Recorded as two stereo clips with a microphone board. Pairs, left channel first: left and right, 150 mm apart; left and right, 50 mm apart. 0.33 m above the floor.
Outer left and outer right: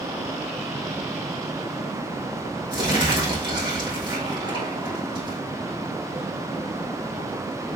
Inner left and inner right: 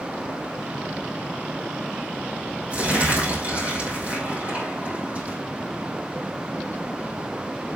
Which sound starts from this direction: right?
Crumpling, at 2.7 s.